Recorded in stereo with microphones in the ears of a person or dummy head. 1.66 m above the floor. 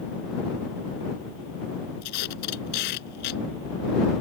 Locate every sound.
2.0 s tape being pulled: 55° left (ahead or behind)